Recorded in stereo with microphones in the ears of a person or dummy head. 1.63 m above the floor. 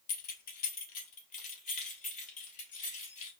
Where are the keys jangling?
55° left (ahead or behind), 0.8 m; by 3.3 s 50° left (ahead or behind), 2.5 m.